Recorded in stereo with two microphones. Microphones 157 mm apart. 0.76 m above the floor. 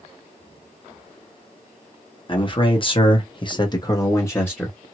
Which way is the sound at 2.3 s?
35° left (ahead or behind).